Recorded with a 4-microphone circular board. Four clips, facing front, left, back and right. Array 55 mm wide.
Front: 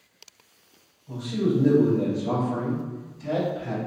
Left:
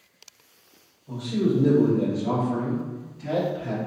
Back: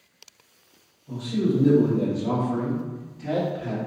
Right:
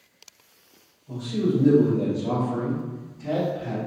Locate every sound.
1.1 s a man speaking: 110° left, 1.8 m; by 3.8 s 160° left, 1.7 m